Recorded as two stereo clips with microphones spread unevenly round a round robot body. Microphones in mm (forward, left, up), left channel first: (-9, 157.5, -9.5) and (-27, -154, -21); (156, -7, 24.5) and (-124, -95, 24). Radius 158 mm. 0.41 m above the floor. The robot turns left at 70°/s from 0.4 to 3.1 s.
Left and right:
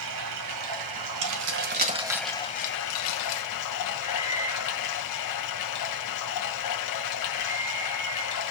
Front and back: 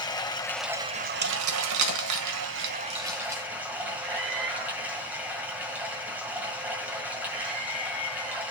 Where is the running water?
60° right, 1.5 m; by 8.5 s 115° left, 1.5 m.